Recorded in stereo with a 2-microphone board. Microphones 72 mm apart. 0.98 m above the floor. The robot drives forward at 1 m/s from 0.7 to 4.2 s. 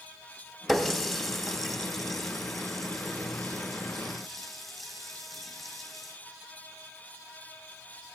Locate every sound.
0.7 s a running tap: centre (ahead or behind), 0.8 m